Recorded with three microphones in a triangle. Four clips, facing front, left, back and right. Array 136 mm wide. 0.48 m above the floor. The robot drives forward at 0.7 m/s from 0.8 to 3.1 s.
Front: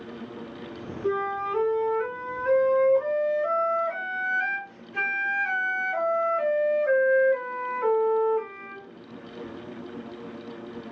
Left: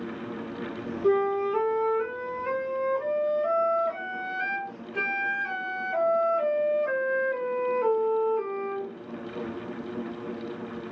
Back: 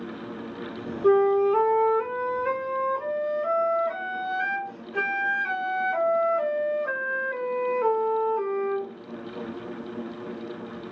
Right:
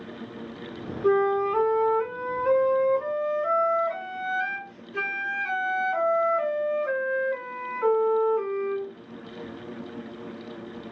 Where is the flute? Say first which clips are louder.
Right 2 dB, back 9 dB; 145° right, 0.9 m; by 8.9 s 165° right, 2.5 m.